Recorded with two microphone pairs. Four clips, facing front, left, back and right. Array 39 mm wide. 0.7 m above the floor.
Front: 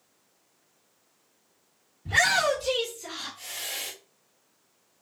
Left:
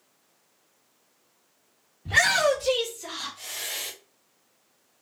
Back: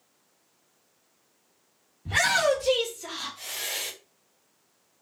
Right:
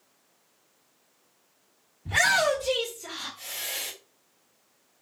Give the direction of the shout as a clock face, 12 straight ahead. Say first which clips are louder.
Left 1 dB, even; 9 o'clock.